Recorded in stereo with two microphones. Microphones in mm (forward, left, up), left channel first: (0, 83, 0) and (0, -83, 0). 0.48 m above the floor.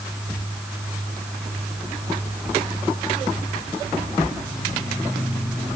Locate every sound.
Only background noise.